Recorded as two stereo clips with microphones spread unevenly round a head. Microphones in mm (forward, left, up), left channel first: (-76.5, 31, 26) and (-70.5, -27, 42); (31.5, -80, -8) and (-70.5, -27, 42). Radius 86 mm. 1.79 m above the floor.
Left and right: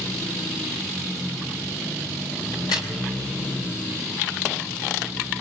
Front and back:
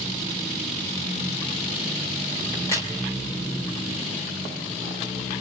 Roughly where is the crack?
Ahead left.